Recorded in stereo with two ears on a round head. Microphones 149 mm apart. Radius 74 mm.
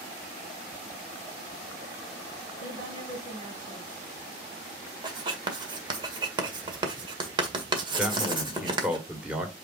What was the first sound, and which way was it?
A woman speaking, 55° right (ahead or behind).